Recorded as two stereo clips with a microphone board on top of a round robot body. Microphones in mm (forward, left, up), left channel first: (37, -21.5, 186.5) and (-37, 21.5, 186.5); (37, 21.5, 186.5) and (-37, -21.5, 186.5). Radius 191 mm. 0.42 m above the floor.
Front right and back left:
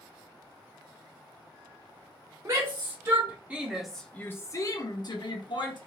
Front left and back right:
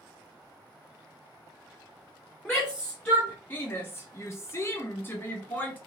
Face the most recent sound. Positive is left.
turn(degrees=-35)